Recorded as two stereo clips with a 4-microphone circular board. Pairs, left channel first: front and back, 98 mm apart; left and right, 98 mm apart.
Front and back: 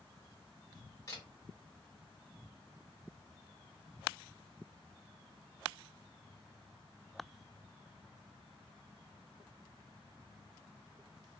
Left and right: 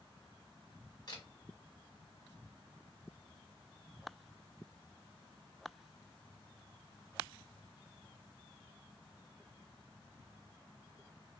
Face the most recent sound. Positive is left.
turn(degrees=50)